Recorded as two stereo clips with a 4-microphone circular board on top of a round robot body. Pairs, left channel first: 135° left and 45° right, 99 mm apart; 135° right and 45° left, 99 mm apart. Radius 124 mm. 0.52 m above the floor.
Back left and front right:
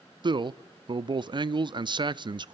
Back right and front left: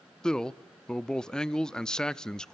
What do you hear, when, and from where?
0.2 s a man speaking: 55° right, 0.8 m